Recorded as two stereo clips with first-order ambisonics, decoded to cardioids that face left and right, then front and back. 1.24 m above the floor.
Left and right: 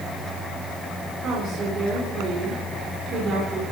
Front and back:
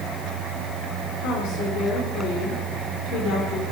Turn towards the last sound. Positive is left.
turn(degrees=-30)